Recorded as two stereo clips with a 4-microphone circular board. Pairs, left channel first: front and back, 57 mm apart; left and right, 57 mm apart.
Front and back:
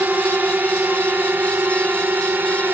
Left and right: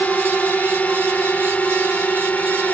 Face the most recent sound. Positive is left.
turn(degrees=140)